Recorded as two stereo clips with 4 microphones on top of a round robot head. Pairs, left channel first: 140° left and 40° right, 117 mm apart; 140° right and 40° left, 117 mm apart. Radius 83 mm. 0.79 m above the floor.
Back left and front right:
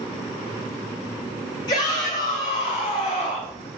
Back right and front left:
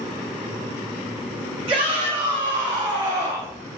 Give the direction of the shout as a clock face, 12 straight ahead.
9 o'clock.